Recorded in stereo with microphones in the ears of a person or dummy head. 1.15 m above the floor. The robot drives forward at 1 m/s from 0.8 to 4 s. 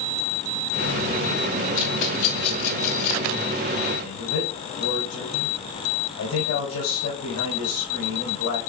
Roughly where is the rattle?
Left.